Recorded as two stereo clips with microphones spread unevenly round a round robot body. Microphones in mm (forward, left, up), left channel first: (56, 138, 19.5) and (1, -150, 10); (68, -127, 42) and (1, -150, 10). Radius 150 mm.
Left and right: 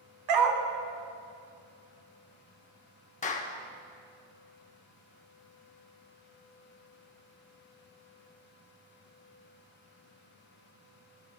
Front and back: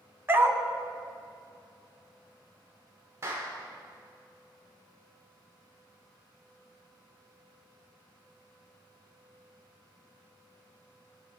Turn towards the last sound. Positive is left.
turn(degrees=145)